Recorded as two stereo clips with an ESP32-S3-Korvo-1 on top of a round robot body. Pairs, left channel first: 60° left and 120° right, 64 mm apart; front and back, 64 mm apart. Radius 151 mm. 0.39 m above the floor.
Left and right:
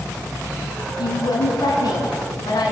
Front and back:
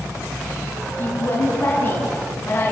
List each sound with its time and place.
1.0 s a woman speaking: 60° left, 5.5 m